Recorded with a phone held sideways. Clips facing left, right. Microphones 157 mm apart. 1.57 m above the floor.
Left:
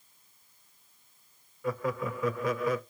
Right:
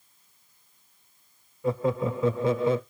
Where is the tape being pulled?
No tape being pulled in this recording.